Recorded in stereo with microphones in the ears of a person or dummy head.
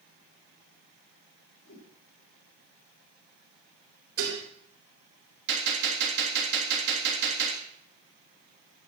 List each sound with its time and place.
1.6 s a whoosh: 40° left (ahead or behind), 2.5 m
4.2 s dishes clattering: 80° right, 3.5 m
5.5 s a gunshot: 60° right (ahead or behind), 3.5 m